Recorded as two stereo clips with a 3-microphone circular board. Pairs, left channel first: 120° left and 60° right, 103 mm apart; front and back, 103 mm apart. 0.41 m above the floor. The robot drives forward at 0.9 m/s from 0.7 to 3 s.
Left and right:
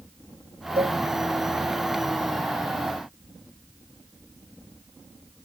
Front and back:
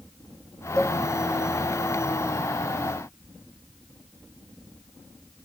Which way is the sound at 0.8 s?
85° right.